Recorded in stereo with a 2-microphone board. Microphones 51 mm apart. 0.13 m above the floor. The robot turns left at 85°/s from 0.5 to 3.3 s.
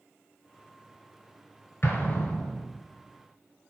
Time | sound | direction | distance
1.8 | an explosion | 50° left (ahead or behind) | 0.6 m